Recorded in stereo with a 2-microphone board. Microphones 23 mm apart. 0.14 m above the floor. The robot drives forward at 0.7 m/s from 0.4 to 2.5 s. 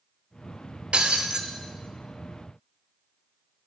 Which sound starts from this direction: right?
Breaking glass, at 0.9 s.